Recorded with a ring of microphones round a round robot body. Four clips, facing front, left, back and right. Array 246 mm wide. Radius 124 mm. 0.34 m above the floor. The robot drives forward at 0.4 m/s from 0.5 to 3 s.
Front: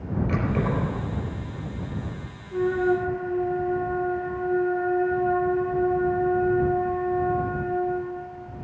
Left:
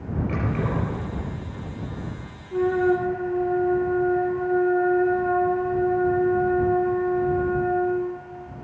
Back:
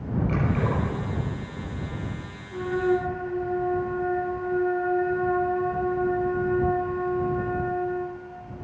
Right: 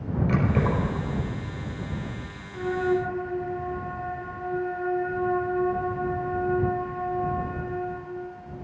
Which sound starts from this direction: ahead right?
Keys jangling, at 0.3 s.